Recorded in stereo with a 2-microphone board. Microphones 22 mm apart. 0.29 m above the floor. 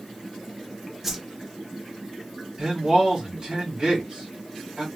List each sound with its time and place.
1.0 s a whoosh: 10° right (ahead or behind), 0.6 m
2.6 s a man speaking: 45° right (ahead or behind), 1.6 m